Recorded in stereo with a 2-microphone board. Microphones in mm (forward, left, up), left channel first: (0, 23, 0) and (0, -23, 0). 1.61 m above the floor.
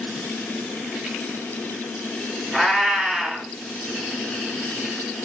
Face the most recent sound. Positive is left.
turn(degrees=-10)  # may be behind; listen again after turning